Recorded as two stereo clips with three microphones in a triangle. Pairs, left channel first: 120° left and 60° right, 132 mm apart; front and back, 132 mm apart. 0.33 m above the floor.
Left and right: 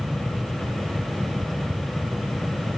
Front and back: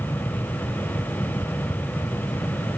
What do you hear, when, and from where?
Only background noise.